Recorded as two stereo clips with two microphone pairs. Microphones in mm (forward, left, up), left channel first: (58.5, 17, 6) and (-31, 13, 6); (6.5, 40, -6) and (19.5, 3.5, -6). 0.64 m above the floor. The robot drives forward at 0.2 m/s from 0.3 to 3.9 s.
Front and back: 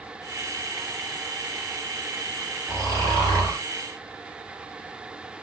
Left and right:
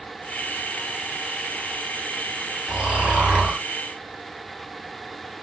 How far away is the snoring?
About 1.7 m.